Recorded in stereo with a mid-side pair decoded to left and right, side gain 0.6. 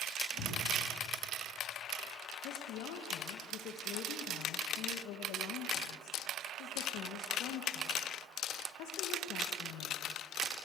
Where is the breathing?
60° left, 5 m.